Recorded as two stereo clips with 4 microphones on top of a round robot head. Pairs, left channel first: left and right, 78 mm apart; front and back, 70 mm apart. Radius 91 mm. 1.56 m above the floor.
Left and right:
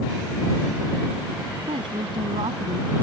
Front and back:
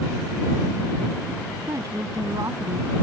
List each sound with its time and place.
1.7 s a woman speaking: 120° right